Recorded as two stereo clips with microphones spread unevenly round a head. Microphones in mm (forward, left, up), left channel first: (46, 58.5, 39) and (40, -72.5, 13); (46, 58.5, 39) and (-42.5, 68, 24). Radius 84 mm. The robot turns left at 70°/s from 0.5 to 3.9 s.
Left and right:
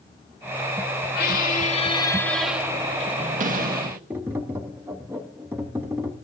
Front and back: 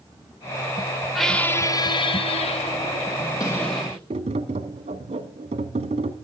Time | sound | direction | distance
1.1 | a squeak | 85° left | 0.9 m
4.1 | tapping | 175° right | 1.0 m